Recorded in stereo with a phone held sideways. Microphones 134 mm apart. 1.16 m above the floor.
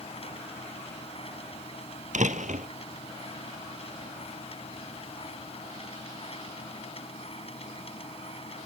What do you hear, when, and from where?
0.0 s a machine running: 45° left (ahead or behind)
2.1 s a door slam: 65° right (ahead or behind)